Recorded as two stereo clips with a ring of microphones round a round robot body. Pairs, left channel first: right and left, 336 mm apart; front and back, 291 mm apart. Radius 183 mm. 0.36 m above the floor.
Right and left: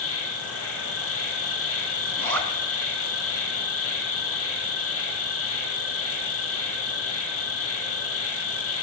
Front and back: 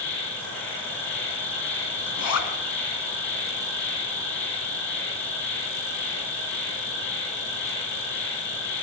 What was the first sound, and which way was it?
An insect, 40° right.